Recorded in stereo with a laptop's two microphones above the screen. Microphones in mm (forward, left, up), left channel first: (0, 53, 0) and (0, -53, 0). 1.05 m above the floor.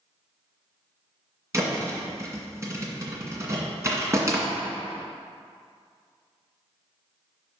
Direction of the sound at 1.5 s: 30° right (ahead or behind).